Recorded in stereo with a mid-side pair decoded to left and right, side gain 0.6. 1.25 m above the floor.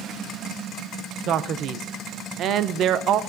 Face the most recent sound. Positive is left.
turn(degrees=-55)